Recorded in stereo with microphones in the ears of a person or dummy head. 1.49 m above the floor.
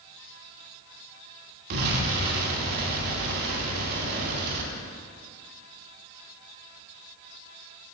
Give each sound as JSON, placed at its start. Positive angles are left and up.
{"t": 1.7, "sound": "an explosion", "side_deg": -60, "distance_m": 2.5}